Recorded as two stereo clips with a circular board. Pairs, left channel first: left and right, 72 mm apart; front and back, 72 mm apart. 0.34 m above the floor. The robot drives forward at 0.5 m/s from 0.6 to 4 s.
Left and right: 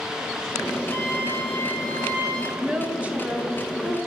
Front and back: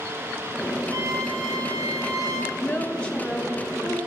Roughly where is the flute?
Behind left.